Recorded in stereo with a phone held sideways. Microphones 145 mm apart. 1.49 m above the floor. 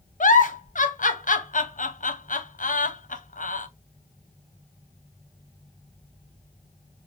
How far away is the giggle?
About 0.6 m.